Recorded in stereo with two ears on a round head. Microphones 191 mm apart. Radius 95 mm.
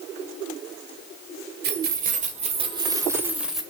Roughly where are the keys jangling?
Right.